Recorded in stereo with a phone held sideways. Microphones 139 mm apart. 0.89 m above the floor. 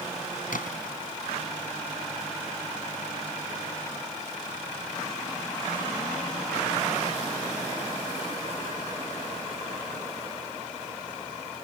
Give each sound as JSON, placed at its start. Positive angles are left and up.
{"t": 0.5, "sound": "a splash", "side_deg": 85}